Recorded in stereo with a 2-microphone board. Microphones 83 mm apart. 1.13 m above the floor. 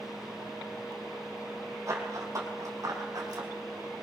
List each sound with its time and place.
1.9 s running footsteps: 35° right (ahead or behind), 3 m; by 3.5 s 55° right (ahead or behind), 3.5 m